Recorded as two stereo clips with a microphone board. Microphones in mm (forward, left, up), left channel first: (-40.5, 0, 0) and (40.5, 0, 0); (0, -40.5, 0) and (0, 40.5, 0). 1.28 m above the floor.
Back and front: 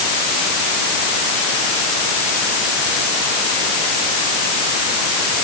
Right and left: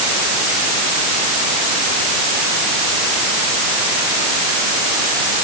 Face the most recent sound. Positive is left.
No sound to turn to.